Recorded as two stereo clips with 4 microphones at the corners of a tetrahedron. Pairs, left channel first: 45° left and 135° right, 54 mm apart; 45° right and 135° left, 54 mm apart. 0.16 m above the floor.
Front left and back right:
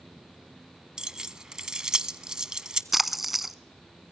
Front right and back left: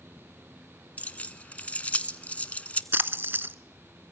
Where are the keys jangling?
70° right, 0.8 m.